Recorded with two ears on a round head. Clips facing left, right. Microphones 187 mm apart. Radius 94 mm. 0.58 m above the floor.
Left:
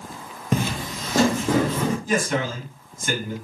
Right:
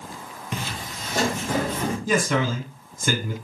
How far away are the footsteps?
About 0.6 m.